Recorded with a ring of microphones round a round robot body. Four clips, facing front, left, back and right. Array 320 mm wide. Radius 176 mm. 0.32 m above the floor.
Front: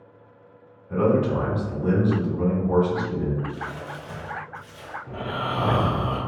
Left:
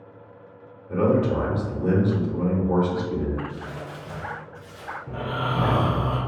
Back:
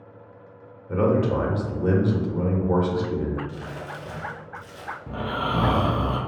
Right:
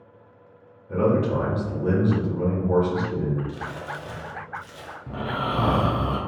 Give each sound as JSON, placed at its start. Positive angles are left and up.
{"t": 0.9, "sound": "a man speaking", "azimuth_deg": 180, "distance_m": 1.0}
{"t": 3.5, "sound": "crumpling", "azimuth_deg": -115, "distance_m": 0.7}
{"t": 5.1, "sound": "snoring", "azimuth_deg": -145, "distance_m": 0.6}